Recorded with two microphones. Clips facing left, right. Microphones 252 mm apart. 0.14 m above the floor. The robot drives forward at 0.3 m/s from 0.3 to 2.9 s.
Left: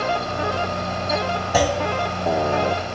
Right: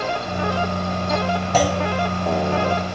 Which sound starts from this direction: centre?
A clunk, at 1.5 s.